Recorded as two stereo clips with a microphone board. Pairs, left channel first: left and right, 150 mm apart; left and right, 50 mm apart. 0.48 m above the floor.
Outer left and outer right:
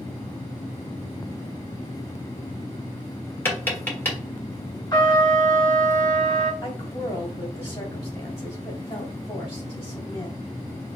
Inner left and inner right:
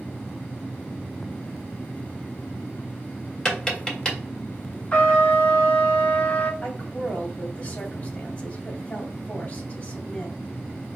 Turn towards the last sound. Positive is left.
turn(degrees=20)  # may be behind; listen again after turning